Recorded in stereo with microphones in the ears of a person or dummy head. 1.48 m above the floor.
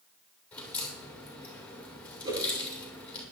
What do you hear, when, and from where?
0.5 s a crack: 10° left (ahead or behind), 5.5 m
2.2 s a whoosh: 25° right (ahead or behind), 6.5 m